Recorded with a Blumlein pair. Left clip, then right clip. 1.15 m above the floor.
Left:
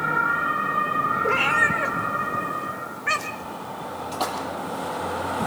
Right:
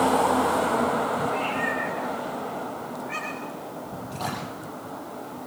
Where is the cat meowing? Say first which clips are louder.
Left 6 dB; 45° left, 2.5 m.